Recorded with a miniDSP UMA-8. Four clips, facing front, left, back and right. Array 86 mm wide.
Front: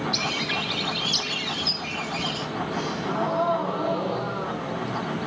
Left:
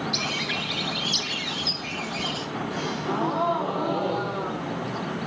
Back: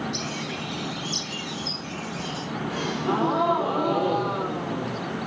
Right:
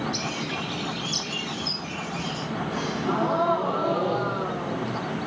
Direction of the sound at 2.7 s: 175° right.